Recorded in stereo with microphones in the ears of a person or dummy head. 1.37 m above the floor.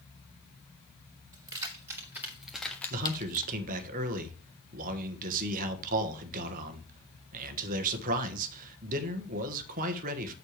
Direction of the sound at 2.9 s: 45° right (ahead or behind).